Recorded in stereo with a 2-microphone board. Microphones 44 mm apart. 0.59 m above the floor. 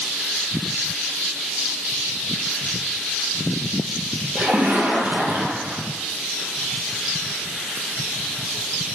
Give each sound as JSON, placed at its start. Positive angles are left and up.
{"t": 4.3, "sound": "a splash", "side_deg": -60, "distance_m": 2.5}